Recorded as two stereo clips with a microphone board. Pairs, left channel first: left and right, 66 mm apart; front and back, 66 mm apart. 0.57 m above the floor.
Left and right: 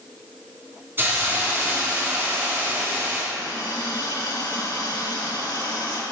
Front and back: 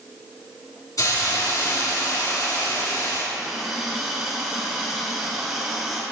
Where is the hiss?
30° right, 4 m.